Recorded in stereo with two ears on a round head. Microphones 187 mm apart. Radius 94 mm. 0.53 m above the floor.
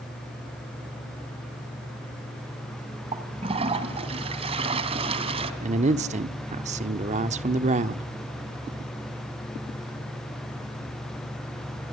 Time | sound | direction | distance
3.1 | a toilet flushing | 30° right (ahead or behind) | 2 m
5.6 | a man speaking | 35° right (ahead or behind) | 1.0 m